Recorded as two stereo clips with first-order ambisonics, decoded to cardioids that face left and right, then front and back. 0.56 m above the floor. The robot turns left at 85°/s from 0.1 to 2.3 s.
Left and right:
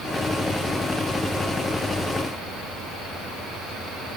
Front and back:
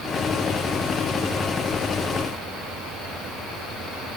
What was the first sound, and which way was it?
Only background noise.